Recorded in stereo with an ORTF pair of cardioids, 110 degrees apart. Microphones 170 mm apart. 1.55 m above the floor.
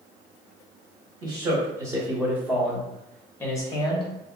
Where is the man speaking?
25° right, 1.9 m; by 4.1 s 35° left, 1.0 m.